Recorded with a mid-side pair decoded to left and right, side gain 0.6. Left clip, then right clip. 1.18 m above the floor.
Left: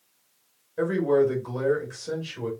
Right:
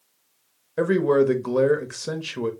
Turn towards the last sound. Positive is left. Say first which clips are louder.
# right 3 dB
turn(degrees=-55)